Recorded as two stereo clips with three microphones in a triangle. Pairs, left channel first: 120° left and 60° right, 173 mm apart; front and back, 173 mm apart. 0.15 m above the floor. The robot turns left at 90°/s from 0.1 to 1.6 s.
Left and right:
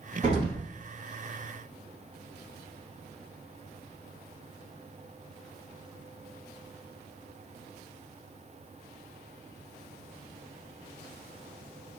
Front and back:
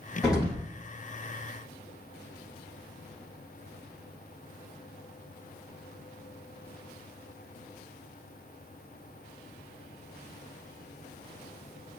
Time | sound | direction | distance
0.2 | an explosion | 85° right | 1.7 m